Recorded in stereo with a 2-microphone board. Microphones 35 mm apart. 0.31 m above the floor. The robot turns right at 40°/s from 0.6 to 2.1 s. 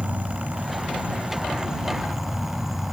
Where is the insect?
70° right; by 2.9 s 10° right.